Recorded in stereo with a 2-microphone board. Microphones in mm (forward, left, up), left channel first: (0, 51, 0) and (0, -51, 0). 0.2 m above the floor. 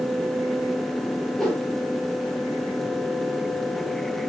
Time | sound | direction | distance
1.4 | a whoosh | 5° left (ahead or behind) | 4.5 m